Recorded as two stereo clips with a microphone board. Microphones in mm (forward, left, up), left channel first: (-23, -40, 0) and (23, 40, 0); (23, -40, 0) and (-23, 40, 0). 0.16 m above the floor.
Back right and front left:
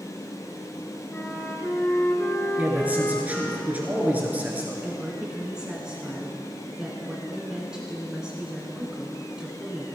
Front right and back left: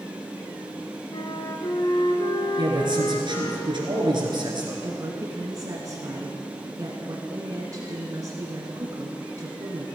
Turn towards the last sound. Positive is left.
turn(degrees=135)